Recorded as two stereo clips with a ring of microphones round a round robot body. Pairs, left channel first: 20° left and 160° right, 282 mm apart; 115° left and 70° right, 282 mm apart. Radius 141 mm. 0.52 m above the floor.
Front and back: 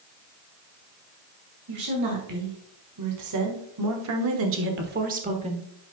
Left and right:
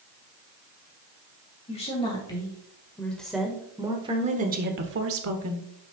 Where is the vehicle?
I don't hear a vehicle.